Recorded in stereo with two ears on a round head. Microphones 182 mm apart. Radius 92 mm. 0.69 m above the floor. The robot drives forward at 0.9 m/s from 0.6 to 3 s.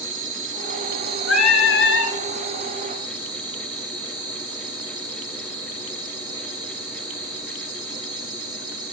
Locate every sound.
0.0 s an insect: 40° right (ahead or behind), 1.1 m; by 8.9 s 25° right (ahead or behind), 1.7 m
1.3 s singing: 75° left (ahead or behind), 1.9 m; by 2.1 s 60° left (ahead or behind), 2 m